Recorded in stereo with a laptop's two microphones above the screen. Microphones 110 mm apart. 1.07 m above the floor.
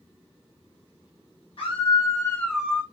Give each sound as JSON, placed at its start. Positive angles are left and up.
{"t": 1.6, "sound": "a scream", "side_deg": 55, "distance_m": 1.3}